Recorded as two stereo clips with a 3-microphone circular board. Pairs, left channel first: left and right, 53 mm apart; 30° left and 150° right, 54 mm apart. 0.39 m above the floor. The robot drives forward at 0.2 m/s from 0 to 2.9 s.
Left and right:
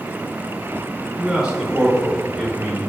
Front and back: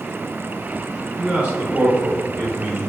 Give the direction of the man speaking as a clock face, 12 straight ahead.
5 o'clock.